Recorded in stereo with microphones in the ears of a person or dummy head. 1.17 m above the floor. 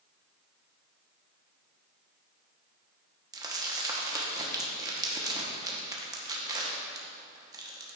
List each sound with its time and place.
3.3 s crumpling: 20° right (ahead or behind), 1.0 m